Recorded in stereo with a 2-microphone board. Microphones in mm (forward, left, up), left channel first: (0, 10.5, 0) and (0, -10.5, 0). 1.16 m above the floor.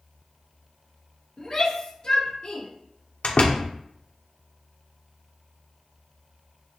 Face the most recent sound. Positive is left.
turn(degrees=65)  # may be behind; listen again after turning